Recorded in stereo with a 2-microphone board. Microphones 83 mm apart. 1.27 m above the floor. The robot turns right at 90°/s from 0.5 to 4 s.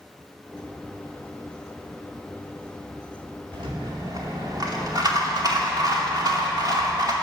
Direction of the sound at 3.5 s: 95° right.